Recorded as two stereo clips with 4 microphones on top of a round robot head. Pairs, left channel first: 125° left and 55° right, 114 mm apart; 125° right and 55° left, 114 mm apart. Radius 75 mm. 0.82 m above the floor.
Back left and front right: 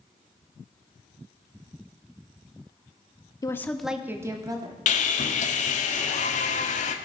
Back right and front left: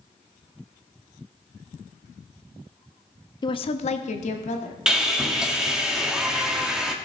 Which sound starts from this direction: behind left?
Sawing, at 4.9 s.